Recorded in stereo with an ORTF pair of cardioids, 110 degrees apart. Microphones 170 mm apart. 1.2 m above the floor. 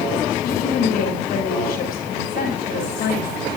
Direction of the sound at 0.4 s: 65° left.